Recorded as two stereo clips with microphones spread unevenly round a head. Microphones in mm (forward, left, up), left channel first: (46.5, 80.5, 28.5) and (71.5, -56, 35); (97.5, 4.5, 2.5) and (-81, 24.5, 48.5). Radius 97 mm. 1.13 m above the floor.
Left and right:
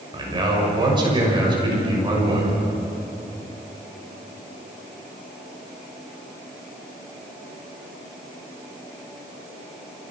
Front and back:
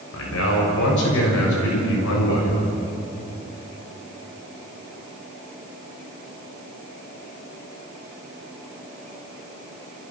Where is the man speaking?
25° right, 6.5 m.